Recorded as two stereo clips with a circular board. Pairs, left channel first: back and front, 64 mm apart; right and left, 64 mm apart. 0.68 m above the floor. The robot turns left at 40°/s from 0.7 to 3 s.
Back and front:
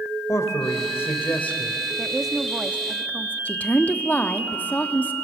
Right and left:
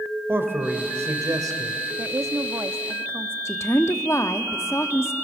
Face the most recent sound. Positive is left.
turn(degrees=-125)